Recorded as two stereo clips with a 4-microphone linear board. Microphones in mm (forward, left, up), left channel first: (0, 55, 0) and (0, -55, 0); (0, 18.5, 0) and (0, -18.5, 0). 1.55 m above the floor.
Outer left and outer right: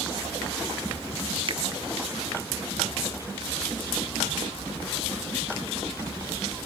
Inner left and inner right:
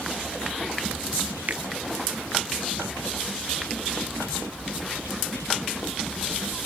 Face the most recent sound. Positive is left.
turn(degrees=-50)  # may be behind; listen again after turning